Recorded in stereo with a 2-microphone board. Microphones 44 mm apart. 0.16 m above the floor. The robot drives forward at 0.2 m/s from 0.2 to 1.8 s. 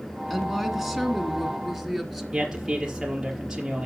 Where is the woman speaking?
Centre (ahead or behind), 1.4 m.